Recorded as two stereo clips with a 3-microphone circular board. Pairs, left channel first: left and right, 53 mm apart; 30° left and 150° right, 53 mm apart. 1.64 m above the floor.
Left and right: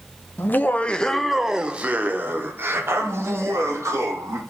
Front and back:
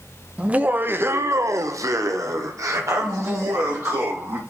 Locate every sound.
0.4 s laughter: 140° left, 0.8 m; by 4.4 s 120° right, 2 m